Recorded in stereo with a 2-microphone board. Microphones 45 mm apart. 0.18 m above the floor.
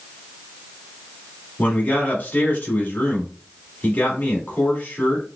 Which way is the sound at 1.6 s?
35° left (ahead or behind).